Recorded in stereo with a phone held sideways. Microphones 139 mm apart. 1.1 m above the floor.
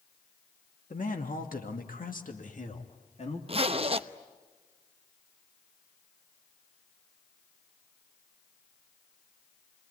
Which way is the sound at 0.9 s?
60° left (ahead or behind).